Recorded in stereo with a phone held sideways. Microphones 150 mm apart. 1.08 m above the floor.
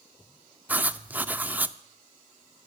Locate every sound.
0.7 s writing: 10° right (ahead or behind), 0.6 m